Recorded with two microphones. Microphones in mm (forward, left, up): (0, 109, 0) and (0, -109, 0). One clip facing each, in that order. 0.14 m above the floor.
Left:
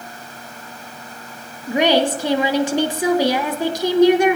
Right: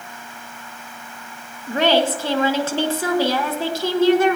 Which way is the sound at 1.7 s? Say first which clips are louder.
Left 2 dB; 15° left (ahead or behind).